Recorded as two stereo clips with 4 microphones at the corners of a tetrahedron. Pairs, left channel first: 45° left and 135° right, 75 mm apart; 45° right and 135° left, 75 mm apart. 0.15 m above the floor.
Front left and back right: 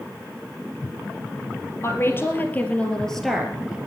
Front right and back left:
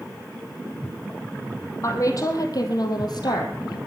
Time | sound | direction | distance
1.8 | a woman speaking | 5° right | 3.5 m